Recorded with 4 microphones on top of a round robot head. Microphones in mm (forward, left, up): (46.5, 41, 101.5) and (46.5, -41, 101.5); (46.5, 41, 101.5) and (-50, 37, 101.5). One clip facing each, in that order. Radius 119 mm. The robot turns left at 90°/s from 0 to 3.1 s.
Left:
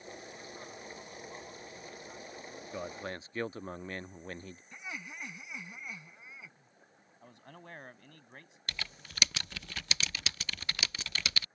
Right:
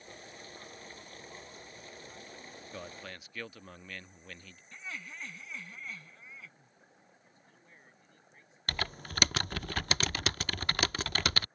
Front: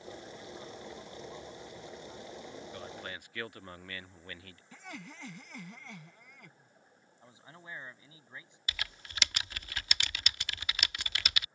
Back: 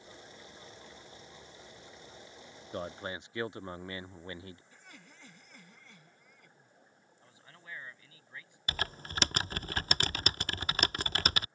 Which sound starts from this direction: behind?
A man speaking, at 2.7 s.